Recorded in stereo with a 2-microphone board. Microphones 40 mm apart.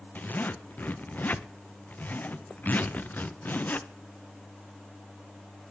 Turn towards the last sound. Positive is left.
turn(degrees=45)  # may be behind; listen again after turning